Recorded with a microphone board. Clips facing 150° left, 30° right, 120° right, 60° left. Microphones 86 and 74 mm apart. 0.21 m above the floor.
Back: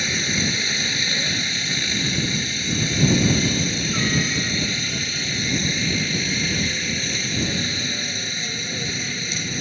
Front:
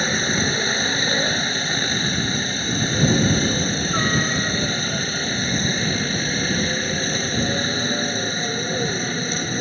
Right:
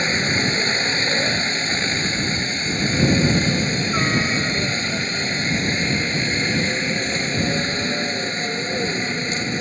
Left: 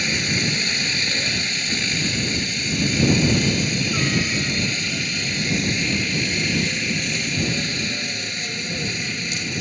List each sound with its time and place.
0.0 s a helicopter: 70° right